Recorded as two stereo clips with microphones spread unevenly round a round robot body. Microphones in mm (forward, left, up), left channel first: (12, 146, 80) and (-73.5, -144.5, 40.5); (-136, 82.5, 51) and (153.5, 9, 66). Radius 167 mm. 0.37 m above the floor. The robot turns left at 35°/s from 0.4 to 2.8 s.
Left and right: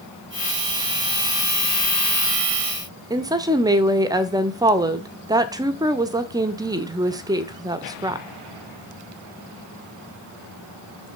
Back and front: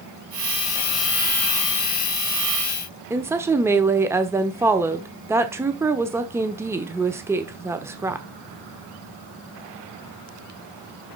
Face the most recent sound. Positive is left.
turn(degrees=-90)